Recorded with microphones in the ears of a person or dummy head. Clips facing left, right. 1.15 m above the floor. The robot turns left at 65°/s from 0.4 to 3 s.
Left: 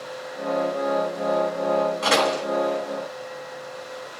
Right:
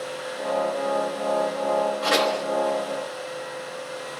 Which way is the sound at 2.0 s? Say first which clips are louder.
Left 1 dB; 30° left (ahead or behind).